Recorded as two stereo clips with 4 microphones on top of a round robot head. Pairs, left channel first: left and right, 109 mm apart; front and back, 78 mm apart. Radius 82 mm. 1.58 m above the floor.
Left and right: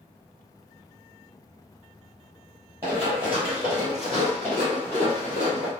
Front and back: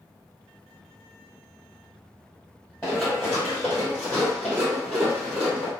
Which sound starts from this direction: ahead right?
Running footsteps, at 2.8 s.